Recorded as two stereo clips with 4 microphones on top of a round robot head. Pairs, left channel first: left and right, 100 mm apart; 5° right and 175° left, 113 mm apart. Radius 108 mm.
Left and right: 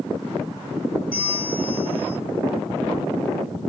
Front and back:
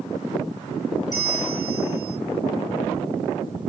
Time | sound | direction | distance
1.1 | a bell | 50° left | 3.5 m